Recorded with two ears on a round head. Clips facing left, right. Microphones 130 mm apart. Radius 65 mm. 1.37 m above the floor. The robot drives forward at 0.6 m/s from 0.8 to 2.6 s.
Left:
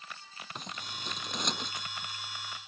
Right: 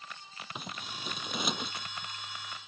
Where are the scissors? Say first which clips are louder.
Right 1 dB; 5° right (ahead or behind).